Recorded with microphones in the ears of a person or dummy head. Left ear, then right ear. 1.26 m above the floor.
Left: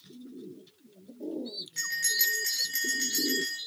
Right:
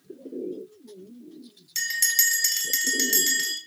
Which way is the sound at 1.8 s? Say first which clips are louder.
Right 5 dB; 75° right (ahead or behind).